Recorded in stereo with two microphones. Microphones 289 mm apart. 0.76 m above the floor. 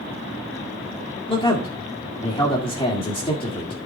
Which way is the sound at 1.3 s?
20° left (ahead or behind).